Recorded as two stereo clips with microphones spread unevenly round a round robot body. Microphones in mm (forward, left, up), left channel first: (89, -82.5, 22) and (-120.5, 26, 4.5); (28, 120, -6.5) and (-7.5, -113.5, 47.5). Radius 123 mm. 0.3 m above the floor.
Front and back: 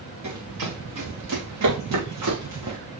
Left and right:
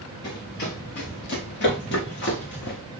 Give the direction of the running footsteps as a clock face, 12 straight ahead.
8 o'clock.